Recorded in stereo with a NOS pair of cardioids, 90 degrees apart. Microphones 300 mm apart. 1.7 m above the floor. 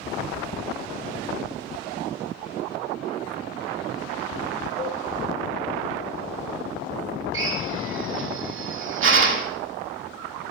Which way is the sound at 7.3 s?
45° right.